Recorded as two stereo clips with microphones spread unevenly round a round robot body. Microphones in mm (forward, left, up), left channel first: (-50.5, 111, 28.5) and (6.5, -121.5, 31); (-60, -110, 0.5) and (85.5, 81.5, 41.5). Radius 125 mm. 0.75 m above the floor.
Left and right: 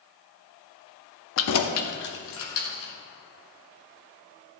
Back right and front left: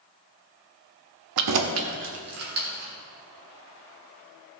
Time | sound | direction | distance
1.4 | keys jangling | 70° left | 0.7 m